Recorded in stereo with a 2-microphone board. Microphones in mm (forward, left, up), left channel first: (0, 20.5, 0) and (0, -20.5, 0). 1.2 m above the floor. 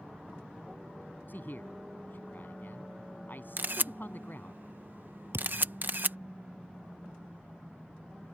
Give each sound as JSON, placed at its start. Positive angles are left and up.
{"t": 1.3, "sound": "a man speaking", "side_deg": 50}
{"t": 3.6, "sound": "a camera shutter", "side_deg": -50}
{"t": 5.3, "sound": "a thud", "side_deg": -75}